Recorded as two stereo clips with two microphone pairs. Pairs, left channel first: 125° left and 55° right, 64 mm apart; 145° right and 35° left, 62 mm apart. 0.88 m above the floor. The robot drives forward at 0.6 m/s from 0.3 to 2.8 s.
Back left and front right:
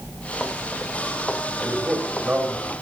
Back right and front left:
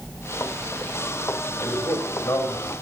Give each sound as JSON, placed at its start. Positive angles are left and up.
{"t": 1.6, "sound": "a man speaking", "azimuth_deg": -135, "distance_m": 4.5}